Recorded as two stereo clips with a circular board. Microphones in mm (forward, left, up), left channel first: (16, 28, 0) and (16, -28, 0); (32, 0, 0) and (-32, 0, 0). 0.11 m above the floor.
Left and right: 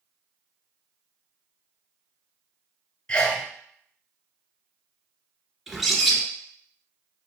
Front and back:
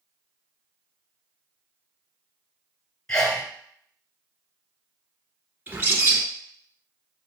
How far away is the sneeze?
About 1.1 m.